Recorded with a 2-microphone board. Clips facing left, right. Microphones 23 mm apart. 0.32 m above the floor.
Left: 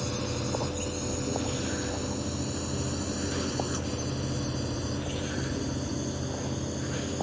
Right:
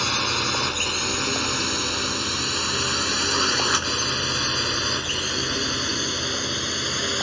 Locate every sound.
0.0 s a drone: 60° right (ahead or behind); by 7.2 s 65° right (ahead or behind)